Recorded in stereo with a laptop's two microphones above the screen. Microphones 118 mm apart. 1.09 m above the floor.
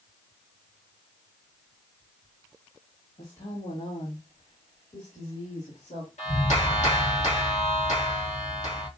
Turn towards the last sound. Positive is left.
turn(degrees=75)  # may be behind; listen again after turning